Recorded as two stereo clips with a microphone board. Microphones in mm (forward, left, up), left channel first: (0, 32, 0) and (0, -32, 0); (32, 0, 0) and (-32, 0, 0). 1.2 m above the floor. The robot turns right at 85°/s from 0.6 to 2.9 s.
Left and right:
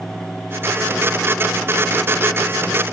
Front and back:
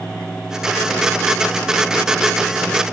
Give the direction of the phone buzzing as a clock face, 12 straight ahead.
I don't hear a phone buzzing.